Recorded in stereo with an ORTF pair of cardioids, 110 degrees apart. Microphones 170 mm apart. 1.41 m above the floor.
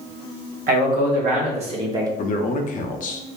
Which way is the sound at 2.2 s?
50° left.